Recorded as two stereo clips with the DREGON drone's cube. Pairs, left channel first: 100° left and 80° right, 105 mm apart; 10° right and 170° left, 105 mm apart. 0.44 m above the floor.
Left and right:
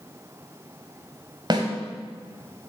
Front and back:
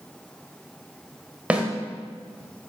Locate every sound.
1.5 s a snare drum: 115° right, 1.5 m